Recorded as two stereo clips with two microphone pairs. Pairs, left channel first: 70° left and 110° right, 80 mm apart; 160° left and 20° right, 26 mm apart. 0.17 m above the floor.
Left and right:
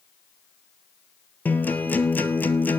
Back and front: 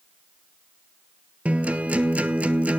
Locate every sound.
1.4 s a guitar: 5° left, 1.0 m